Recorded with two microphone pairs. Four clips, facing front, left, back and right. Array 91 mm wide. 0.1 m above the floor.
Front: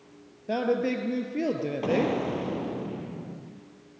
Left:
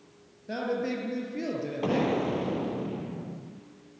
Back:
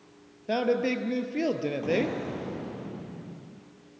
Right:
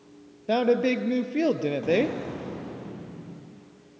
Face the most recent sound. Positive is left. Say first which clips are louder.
# even, front 4 dB
turn(degrees=50)